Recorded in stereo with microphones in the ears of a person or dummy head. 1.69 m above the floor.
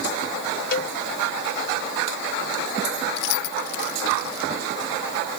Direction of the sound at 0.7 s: 50° left (ahead or behind).